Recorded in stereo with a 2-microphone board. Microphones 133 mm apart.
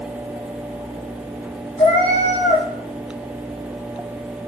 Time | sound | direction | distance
1.8 | a cat meowing | 45° left (ahead or behind) | 5 m